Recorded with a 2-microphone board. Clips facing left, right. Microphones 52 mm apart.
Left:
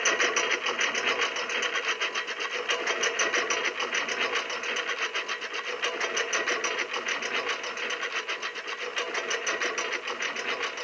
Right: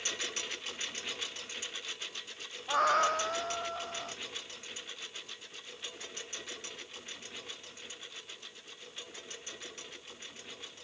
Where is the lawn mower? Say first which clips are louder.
Left 14 dB; 60° left (ahead or behind); by 10.8 s 70° left (ahead or behind).